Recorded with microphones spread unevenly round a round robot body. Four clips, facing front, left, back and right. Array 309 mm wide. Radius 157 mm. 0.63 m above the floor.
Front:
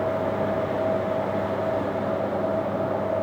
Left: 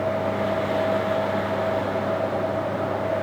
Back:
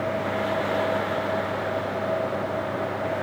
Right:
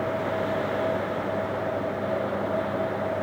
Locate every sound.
Only background noise.